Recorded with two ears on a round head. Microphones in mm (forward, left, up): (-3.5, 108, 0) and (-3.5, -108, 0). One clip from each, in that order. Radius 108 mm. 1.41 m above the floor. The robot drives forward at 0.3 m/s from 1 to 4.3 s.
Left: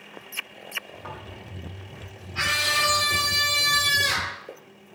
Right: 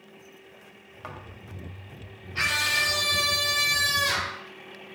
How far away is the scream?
About 3.5 m.